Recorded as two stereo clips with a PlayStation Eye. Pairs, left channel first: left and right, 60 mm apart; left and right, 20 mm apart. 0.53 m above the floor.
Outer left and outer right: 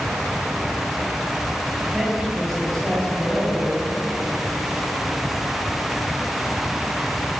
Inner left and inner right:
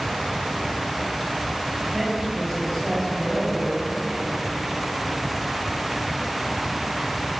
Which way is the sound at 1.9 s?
5° right (ahead or behind).